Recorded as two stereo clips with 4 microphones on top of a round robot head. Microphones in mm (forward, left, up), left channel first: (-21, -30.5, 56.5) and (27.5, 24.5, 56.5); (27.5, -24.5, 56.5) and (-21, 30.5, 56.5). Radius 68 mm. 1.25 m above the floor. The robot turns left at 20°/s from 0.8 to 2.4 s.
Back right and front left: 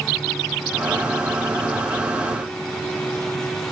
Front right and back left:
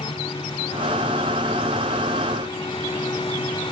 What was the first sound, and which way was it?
Only background noise.